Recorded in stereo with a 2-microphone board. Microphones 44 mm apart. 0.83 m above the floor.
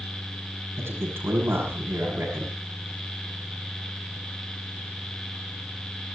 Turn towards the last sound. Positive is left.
turn(degrees=-60)  # may be behind; listen again after turning